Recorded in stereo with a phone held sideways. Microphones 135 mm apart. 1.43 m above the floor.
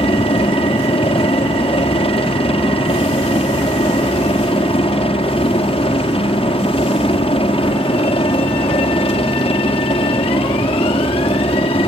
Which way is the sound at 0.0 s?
45° left (ahead or behind).